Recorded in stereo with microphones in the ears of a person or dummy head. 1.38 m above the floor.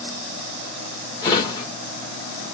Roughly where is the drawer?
Left.